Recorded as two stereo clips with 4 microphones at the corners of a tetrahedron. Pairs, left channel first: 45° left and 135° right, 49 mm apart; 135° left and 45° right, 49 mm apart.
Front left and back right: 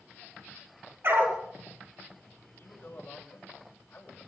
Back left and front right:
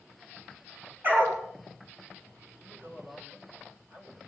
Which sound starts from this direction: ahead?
A man speaking, at 2.5 s.